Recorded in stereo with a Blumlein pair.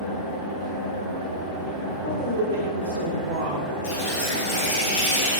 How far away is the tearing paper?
About 1.0 m.